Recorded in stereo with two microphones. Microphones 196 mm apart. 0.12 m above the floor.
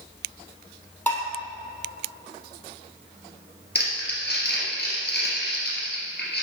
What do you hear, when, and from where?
1.1 s dishes clattering: 10° left (ahead or behind), 2 m
3.8 s crumpling: 55° left (ahead or behind), 2.5 m